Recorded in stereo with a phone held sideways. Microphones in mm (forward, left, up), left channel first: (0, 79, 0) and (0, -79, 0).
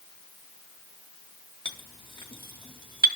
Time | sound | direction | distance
1.6 | a clink | 30° left (ahead or behind) | 0.9 m